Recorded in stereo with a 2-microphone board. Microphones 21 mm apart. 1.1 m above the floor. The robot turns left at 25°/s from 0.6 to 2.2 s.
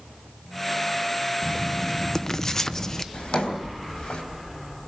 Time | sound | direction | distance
1.4 | writing | 25° left (ahead or behind) | 0.7 m
3.1 | a drawer | 70° left (ahead or behind) | 3 m